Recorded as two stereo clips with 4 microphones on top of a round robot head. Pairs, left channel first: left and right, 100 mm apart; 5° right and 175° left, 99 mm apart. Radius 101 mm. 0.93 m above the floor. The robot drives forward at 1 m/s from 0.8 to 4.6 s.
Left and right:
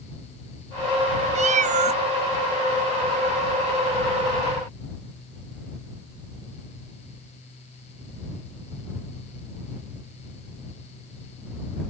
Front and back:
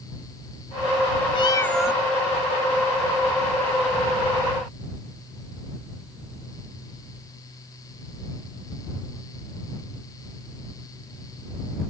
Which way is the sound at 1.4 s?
55° right.